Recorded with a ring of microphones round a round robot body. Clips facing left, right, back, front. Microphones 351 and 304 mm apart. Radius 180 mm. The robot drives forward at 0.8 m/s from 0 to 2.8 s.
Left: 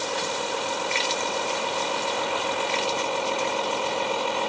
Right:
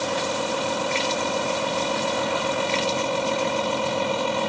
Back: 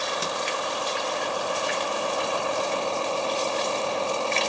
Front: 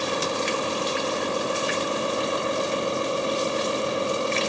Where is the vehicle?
65° right; by 4.5 s 75° right.